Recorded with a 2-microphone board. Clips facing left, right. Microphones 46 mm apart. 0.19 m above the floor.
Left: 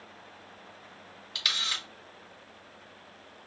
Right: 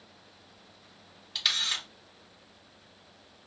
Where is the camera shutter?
Centre (ahead or behind), 1.6 m.